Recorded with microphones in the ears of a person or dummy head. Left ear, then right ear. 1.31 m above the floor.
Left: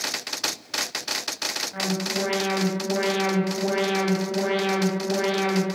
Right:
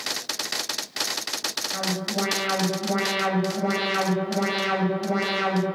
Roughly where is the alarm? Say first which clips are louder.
Even; right.